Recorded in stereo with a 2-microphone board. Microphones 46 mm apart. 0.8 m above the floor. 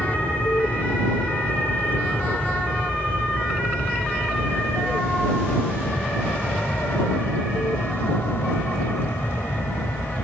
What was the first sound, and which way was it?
An aircraft, 35° left (ahead or behind).